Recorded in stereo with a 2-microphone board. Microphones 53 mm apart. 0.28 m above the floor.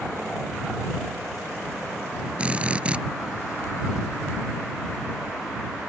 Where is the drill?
20° right (ahead or behind).